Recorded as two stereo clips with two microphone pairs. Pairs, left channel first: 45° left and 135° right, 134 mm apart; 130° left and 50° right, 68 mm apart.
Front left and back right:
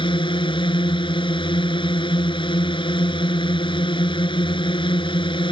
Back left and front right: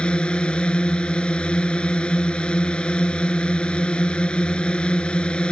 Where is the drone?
65° left.